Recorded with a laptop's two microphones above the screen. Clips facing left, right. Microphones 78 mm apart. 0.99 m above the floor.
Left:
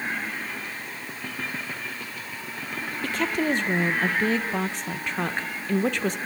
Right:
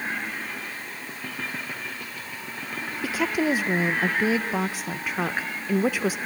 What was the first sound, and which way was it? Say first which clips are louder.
A woman speaking: right 1 dB; 10° right (ahead or behind).